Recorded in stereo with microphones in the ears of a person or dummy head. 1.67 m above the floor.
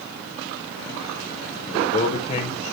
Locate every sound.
1.7 s a man speaking: 45° left (ahead or behind), 1.0 m